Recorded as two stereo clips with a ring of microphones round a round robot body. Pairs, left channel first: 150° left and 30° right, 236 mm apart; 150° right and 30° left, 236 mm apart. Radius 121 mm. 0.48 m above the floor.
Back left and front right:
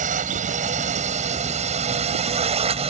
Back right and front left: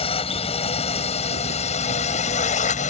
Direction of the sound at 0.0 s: 85° right.